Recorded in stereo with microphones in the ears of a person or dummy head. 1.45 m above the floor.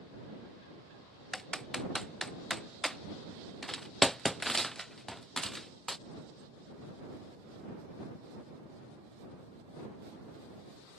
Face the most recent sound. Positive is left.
turn(degrees=0)  # may be behind; listen again after turning